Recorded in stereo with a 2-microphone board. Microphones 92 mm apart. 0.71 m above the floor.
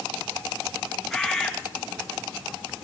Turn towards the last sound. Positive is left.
turn(degrees=5)  # may be behind; listen again after turning